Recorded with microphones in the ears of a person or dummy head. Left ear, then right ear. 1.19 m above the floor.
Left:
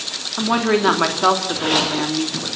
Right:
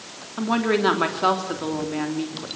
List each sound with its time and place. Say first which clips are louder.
0.4 s a woman speaking: left 3 dB; 10° left (ahead or behind), 3 m